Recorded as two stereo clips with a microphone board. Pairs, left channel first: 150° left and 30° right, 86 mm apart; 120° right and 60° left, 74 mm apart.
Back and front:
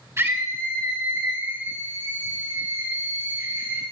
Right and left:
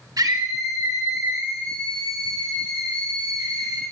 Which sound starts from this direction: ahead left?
A scream, at 0.2 s.